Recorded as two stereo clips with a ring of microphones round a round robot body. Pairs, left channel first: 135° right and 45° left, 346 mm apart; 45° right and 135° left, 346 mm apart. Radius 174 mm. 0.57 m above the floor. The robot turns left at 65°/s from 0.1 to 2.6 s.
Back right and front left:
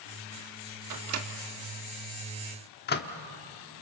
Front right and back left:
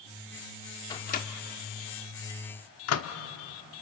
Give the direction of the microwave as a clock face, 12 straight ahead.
11 o'clock.